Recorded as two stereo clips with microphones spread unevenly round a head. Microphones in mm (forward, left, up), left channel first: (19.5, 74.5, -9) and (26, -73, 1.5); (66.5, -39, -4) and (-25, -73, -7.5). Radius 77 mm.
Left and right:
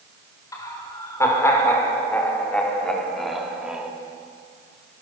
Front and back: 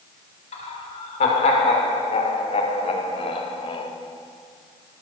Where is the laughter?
25° left, 6 m; by 3.9 s 5° right, 3.5 m.